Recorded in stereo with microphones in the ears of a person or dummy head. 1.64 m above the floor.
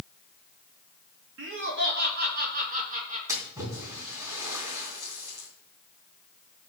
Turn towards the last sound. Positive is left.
turn(degrees=-20)  # may be behind; listen again after turning